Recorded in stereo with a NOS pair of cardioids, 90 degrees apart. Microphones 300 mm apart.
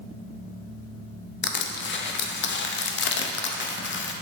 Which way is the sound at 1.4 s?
40° left.